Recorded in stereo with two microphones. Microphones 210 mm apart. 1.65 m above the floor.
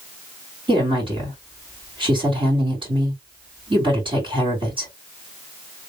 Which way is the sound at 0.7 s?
25° right (ahead or behind).